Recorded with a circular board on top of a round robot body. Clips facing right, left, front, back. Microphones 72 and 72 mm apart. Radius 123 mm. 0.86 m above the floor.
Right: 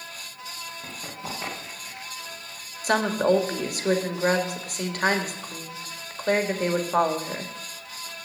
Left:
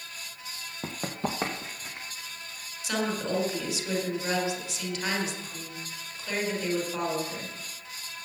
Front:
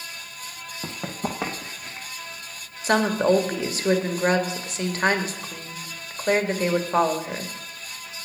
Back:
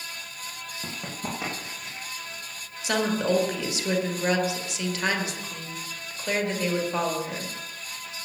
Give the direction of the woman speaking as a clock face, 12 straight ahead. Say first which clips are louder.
Right 8 dB, front 5 dB; 2 o'clock.